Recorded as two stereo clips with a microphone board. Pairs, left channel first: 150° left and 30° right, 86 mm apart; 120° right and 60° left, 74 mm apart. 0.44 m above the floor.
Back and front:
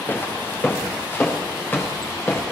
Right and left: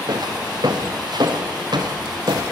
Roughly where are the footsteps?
Left.